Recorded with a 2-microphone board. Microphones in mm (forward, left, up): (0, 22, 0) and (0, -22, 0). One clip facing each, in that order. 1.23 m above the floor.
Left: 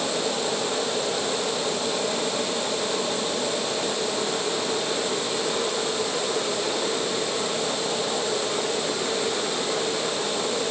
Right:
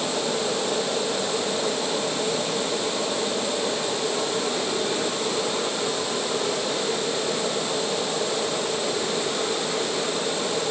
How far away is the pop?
I don't hear a pop.